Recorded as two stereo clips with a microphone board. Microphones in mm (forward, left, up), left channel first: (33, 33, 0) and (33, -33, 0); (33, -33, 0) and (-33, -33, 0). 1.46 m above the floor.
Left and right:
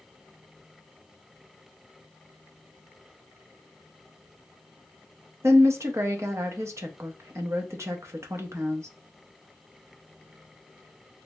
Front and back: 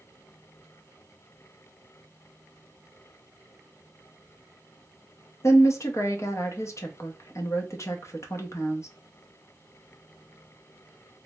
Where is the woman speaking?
45° right, 0.8 m.